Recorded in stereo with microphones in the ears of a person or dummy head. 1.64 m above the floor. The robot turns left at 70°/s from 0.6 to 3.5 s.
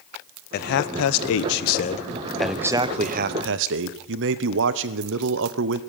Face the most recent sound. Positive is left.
turn(degrees=-75)